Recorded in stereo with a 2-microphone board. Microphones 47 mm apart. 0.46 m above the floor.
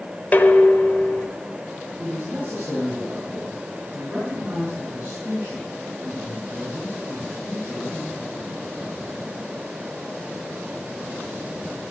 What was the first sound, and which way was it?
Dishes clattering, 35° left (ahead or behind).